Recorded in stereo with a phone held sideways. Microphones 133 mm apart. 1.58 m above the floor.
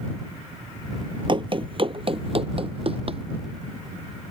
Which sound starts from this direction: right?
Running footsteps, at 1.3 s.